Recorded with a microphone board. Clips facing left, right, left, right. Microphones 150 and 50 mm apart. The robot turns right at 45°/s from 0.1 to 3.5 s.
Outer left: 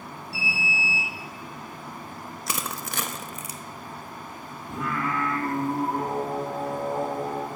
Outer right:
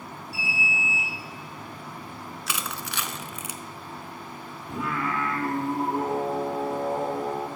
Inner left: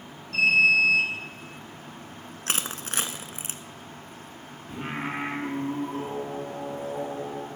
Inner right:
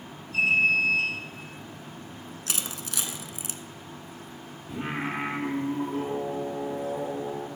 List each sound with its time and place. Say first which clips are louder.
0.3 s an alarm: outer left 1 dB, inner left 3 dB; 60° left, 5 m; by 1.1 s 95° left, 5 m
2.5 s crushing: outer left 2 dB, inner left 5 dB; 40° left (ahead or behind), 0.7 m
4.7 s singing: even, inner right 1 dB; centre (ahead or behind), 2.0 m